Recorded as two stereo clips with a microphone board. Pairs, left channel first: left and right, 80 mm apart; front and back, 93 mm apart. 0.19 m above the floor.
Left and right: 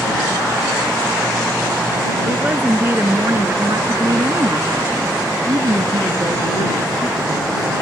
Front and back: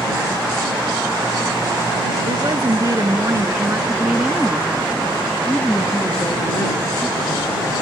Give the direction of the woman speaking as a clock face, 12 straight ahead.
5 o'clock.